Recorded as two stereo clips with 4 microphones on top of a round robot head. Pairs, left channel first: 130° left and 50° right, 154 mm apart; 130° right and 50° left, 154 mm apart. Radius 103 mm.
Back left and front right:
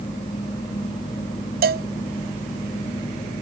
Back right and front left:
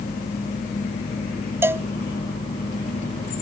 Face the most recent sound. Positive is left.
turn(degrees=-25)